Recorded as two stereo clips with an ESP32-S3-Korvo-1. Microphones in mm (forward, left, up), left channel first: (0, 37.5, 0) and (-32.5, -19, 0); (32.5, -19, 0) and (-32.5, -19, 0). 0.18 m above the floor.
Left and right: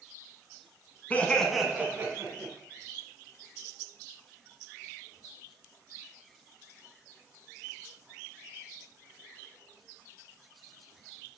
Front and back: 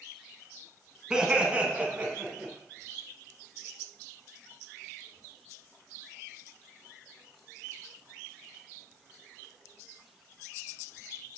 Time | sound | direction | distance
1.1 | laughter | 110° left | 1.3 m